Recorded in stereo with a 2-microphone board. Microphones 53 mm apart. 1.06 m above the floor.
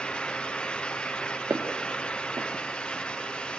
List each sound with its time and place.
1.5 s footsteps: 65° right (ahead or behind), 2.5 m